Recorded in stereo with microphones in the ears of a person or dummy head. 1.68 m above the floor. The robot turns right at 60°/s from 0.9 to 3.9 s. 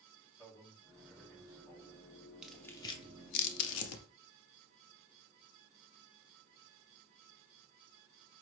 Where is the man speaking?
20° right, 3 m; by 2.0 s 45° left, 3 m.